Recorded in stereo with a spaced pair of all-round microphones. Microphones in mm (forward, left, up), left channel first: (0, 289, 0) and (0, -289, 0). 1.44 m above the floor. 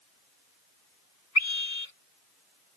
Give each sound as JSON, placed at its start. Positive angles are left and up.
{"t": 1.4, "sound": "a scream", "side_deg": 75}